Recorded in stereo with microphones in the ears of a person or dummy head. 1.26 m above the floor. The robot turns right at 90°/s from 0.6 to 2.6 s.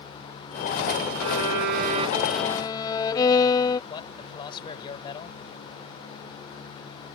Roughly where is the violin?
Right.